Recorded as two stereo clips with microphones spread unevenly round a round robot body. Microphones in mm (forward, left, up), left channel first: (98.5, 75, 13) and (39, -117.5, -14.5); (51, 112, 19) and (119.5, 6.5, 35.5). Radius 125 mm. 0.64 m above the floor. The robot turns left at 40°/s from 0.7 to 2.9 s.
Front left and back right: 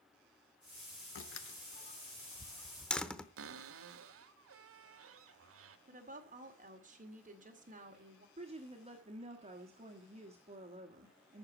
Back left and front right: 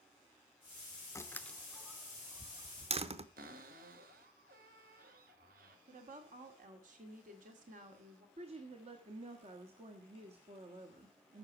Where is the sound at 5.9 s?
65° right, 2 m.